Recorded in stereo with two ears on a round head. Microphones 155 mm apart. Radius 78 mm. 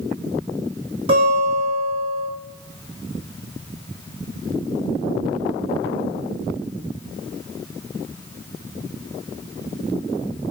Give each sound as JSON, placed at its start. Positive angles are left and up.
{"t": 1.1, "sound": "a guitar", "side_deg": -30, "distance_m": 3.5}